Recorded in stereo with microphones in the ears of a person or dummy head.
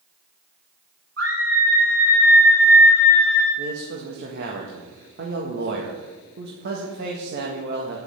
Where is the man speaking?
65° right (ahead or behind), 1.7 m.